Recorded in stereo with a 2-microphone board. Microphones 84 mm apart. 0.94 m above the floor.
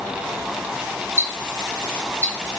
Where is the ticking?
30° right (ahead or behind), 1.0 m.